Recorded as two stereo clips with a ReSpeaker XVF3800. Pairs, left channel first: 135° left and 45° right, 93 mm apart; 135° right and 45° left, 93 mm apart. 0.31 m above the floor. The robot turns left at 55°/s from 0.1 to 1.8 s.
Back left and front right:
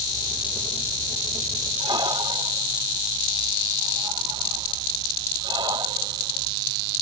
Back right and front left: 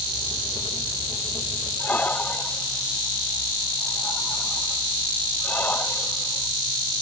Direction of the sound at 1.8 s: 65° right.